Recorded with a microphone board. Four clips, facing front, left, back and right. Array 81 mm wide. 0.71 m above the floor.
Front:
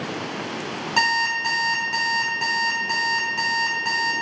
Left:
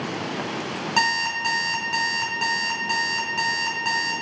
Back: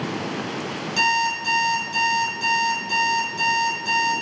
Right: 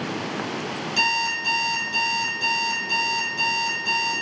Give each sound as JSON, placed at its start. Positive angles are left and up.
{"t": 1.0, "sound": "an alarm clock", "azimuth_deg": 50, "distance_m": 4.5}